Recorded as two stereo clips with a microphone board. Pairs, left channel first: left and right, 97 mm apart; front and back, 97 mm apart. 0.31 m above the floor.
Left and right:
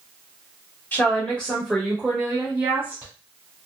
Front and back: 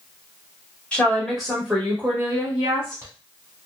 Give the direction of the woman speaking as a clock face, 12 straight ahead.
10 o'clock.